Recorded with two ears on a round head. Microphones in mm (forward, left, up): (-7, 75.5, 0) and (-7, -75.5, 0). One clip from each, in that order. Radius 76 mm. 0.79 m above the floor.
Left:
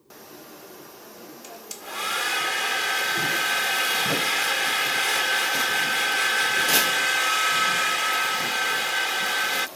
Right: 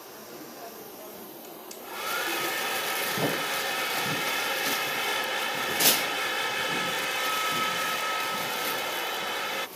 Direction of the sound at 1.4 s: 40° left (ahead or behind).